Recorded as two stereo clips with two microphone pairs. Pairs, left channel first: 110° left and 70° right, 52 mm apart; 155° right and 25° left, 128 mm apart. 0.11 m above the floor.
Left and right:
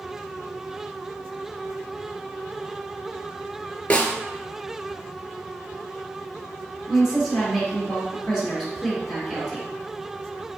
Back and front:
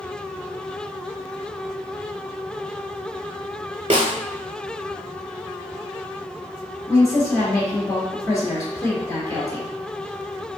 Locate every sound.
3.9 s a snare drum: 50° left, 0.6 m
6.9 s a woman speaking: 150° right, 1.7 m